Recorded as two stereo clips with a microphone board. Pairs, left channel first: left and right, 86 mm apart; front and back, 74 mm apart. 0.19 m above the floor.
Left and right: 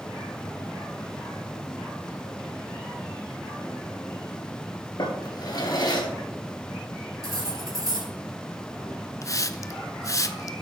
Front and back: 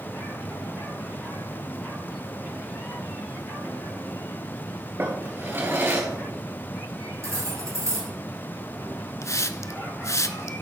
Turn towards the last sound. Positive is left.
turn(degrees=45)